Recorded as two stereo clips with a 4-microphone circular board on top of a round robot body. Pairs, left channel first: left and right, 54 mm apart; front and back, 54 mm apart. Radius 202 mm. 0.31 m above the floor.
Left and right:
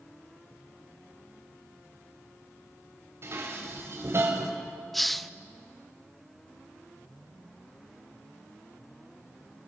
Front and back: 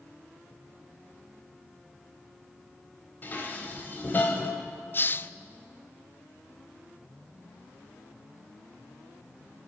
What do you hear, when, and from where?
3.2 s dishes clattering: 50° right, 1.6 m
4.9 s a hiss: 5° left, 0.6 m